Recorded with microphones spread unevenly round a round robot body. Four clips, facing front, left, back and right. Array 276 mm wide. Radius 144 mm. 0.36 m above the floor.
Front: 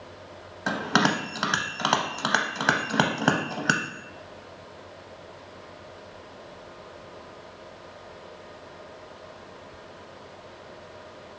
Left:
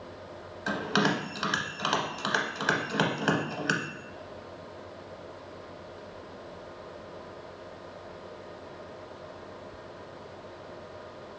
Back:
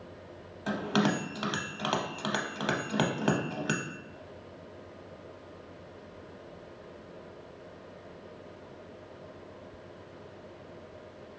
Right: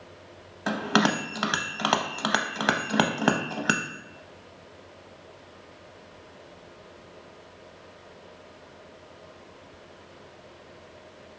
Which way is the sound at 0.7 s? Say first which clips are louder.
Right 3 dB, front 4 dB; 50° right.